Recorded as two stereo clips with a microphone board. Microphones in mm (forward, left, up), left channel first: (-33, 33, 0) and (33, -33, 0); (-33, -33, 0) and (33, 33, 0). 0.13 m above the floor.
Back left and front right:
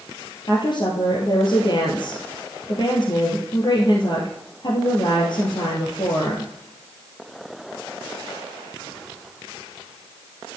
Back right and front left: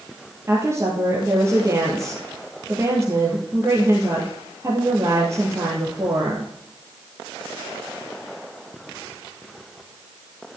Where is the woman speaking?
105° left, 3 m.